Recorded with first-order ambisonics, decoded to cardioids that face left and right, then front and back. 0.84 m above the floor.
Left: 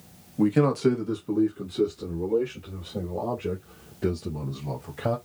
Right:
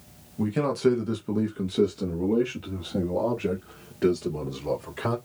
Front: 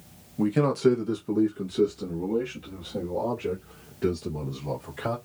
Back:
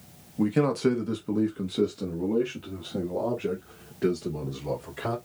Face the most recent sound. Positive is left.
turn(degrees=-110)